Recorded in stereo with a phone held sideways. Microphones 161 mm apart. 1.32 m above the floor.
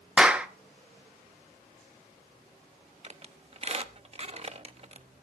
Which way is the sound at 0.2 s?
5° right (ahead or behind).